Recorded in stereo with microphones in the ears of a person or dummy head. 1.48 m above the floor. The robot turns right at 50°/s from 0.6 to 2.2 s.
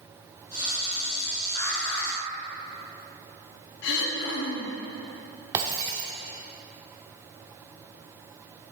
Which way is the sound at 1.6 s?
45° left (ahead or behind).